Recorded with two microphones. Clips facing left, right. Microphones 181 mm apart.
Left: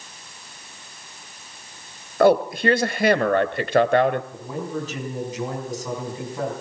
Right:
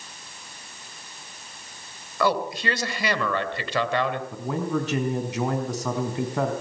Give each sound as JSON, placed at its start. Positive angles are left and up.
{"t": 2.2, "sound": "a man speaking", "side_deg": 50, "distance_m": 1.8}
{"t": 4.3, "sound": "a man speaking", "side_deg": -70, "distance_m": 4.5}